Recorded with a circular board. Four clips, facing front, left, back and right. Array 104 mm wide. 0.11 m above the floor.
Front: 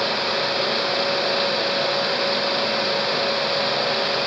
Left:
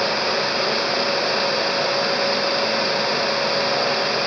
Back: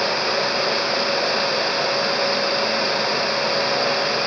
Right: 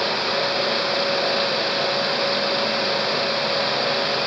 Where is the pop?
I don't hear a pop.